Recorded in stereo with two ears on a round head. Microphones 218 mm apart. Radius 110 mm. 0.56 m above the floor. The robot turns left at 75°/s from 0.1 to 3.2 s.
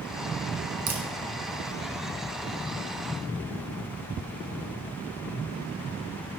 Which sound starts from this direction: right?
A crack, at 0.9 s.